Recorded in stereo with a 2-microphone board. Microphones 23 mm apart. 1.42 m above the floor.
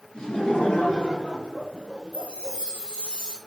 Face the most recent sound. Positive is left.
turn(degrees=85)